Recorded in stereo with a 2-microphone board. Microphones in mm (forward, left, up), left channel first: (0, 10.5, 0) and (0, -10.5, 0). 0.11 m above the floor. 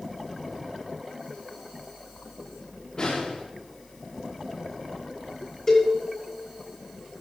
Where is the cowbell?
25° left (ahead or behind), 6.5 m.